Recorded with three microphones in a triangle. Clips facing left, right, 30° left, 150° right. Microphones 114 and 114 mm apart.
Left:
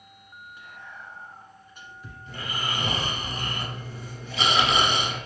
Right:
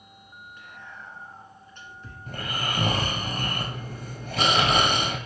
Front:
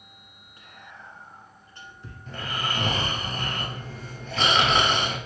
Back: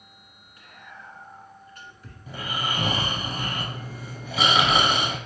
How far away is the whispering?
About 1.4 m.